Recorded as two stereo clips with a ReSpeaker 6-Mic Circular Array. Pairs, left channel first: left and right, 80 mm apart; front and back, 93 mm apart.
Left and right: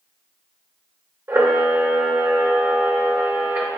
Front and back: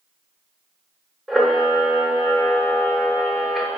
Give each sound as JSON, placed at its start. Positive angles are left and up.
{"t": 1.3, "sound": "a camera shutter", "azimuth_deg": -90, "distance_m": 0.5}